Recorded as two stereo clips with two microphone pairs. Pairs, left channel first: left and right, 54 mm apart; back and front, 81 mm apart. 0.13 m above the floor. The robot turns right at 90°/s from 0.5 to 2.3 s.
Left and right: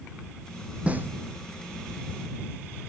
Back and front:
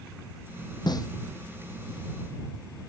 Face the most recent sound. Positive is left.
turn(degrees=-25)